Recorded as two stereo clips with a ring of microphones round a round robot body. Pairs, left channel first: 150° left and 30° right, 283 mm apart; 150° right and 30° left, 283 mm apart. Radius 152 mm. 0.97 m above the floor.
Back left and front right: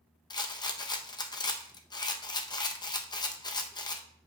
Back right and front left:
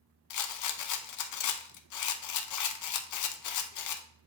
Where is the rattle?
135° right, 0.7 m.